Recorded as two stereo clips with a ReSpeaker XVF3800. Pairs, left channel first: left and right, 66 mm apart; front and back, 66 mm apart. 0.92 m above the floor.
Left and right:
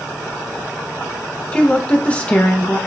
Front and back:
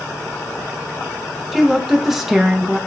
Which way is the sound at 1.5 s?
105° left.